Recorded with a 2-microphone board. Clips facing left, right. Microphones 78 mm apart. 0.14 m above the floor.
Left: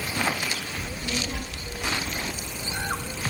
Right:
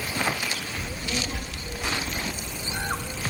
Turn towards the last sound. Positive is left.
turn(degrees=-40)  # may be behind; listen again after turning